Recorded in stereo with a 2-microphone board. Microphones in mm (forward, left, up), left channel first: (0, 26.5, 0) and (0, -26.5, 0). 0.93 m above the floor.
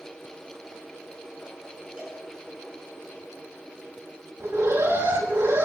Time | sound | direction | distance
2.0 | a cowbell | 20° right (ahead or behind) | 8.5 m
4.4 | an alarm | 55° right (ahead or behind) | 5.5 m